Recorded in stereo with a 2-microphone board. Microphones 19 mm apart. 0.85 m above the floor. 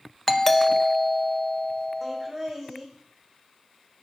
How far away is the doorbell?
About 0.7 m.